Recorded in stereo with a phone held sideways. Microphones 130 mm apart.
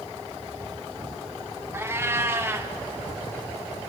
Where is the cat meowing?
20° right (ahead or behind), 0.6 m.